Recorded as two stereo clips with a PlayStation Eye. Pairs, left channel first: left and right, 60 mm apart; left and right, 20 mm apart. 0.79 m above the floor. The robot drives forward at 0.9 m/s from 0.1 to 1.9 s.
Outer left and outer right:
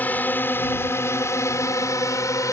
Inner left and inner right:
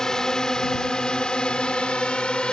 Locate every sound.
0.0 s a drone: 30° left (ahead or behind); by 2.5 s 70° left (ahead or behind)